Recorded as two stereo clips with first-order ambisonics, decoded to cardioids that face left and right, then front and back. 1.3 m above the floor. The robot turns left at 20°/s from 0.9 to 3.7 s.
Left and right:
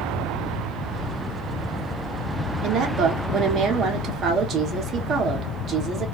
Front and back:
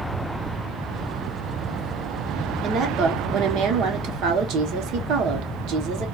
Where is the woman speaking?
130° right, 0.9 m; by 6.0 s 150° right, 0.9 m.